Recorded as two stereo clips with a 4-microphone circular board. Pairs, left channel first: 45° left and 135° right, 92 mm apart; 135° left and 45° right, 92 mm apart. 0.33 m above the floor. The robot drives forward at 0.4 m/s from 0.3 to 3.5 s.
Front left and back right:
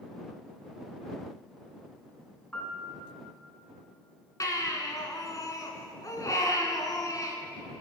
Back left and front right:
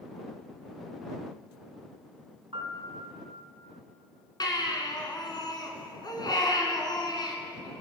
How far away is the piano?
About 3 m.